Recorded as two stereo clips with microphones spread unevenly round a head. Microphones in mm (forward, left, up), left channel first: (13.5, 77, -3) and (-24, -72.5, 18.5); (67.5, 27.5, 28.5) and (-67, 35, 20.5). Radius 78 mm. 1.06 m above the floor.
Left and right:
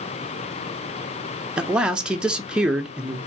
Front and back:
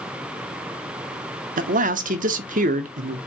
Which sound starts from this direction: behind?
A man speaking, at 1.6 s.